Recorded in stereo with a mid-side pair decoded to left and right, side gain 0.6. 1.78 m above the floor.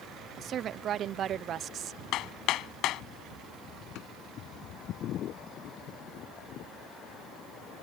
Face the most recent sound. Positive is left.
turn(degrees=70)